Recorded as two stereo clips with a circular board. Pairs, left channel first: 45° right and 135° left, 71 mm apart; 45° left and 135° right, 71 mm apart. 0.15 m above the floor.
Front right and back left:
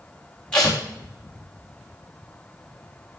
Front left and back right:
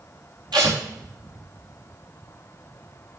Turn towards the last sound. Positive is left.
turn(degrees=-120)